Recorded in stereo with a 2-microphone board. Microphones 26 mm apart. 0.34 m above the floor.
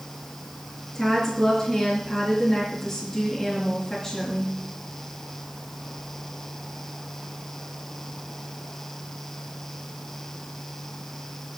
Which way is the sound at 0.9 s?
10° left (ahead or behind).